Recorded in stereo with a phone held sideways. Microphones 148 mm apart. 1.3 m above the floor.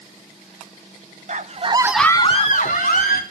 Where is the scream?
55° right (ahead or behind), 1.2 m; by 3.2 s 70° left (ahead or behind), 1.8 m.